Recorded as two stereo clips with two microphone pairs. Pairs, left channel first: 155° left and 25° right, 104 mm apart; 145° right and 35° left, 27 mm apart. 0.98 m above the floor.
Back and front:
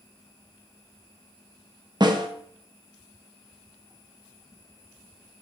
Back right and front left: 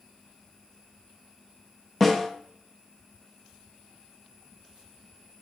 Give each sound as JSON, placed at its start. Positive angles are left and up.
{"t": 2.0, "sound": "a snare drum", "azimuth_deg": -70, "distance_m": 0.6}